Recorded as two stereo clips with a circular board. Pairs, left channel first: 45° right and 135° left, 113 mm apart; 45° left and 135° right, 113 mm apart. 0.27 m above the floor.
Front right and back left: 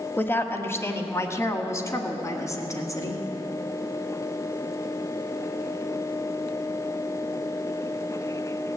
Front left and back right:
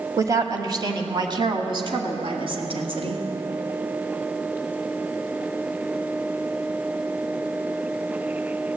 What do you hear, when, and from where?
0.2 s a woman speaking: 100° right, 1.1 m; by 3.2 s 105° right, 2.5 m